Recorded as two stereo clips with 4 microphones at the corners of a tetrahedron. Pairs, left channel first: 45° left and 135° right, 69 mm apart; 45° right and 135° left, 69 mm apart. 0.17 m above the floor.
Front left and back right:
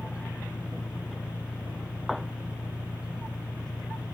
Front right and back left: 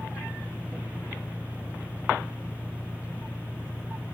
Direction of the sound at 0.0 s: 35° left.